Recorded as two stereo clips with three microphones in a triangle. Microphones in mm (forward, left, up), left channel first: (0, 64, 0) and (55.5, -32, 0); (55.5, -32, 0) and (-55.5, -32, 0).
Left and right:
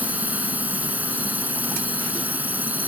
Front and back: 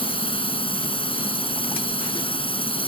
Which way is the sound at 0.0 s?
15° left.